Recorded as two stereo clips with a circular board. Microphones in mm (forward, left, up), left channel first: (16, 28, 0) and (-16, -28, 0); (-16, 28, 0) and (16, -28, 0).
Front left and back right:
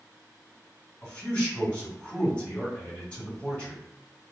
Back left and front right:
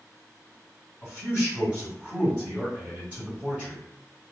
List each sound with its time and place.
1.0 s a man speaking: straight ahead, 1.6 m